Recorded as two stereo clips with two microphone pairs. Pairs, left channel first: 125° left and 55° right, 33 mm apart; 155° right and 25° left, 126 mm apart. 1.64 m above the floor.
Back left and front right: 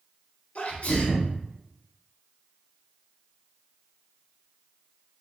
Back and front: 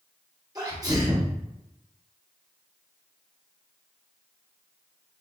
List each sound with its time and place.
0.6 s a sneeze: 85° left, 1.5 m